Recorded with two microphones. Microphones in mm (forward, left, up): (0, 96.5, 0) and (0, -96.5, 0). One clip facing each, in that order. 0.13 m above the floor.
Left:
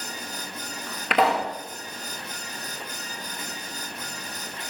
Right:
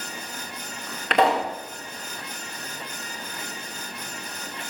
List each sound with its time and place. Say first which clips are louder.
1.1 s a pop: right 2 dB; 5° left (ahead or behind), 6.5 m